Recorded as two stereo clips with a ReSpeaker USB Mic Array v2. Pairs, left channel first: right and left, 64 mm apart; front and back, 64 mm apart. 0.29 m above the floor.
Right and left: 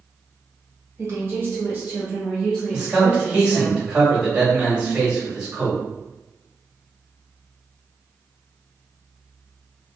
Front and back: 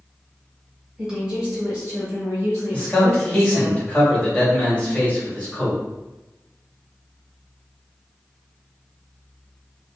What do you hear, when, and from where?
1.0 s a woman speaking: 100° left, 1.3 m; by 3.7 s 155° right, 1.4 m
2.7 s a man speaking: 30° left, 1.2 m